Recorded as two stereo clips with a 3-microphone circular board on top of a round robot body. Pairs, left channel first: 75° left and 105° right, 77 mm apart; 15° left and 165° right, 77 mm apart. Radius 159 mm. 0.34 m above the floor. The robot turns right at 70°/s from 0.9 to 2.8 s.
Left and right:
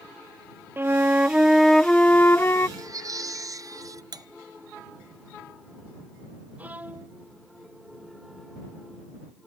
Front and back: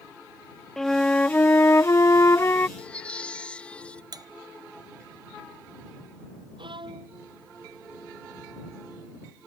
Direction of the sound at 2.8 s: 65° right.